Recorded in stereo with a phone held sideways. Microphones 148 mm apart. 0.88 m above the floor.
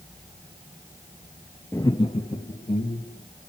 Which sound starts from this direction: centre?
Laughter, at 1.7 s.